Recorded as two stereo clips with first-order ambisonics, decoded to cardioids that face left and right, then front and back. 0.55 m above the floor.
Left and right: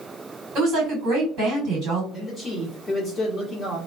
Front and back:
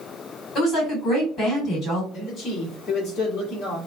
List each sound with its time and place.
0.6 s a woman speaking: 55° right, 1.8 m
2.1 s a man speaking: 35° left, 1.3 m